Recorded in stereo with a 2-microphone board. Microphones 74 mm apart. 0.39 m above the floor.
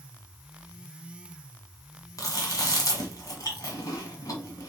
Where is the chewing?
50° left (ahead or behind), 1.5 m.